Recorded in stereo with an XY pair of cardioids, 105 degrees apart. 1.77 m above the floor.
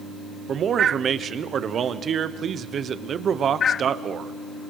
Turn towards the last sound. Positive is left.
turn(degrees=-50)